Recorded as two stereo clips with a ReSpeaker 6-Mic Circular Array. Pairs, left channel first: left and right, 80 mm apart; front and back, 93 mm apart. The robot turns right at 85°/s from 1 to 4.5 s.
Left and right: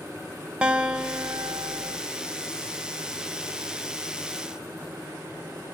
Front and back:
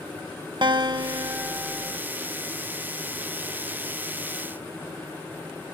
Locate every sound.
0.6 s a guitar: 165° right, 1.5 m; by 2.0 s 80° right, 1.5 m